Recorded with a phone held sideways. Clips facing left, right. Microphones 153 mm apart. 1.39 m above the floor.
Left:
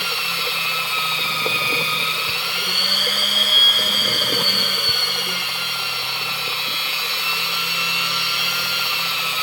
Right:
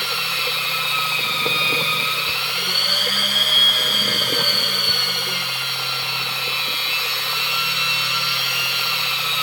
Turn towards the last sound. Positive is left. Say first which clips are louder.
# even
turn(degrees=10)  # may be behind; listen again after turning